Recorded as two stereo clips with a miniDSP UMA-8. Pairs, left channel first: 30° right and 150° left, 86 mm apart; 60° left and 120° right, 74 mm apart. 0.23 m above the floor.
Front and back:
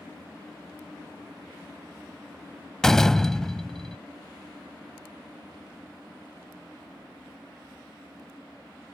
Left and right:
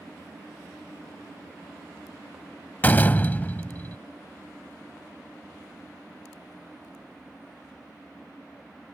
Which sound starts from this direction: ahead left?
A door slam, at 2.8 s.